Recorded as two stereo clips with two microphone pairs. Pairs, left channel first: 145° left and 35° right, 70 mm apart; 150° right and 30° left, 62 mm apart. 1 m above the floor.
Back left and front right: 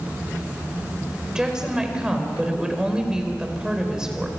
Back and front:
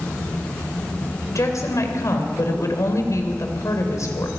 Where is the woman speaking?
115° right, 4 m.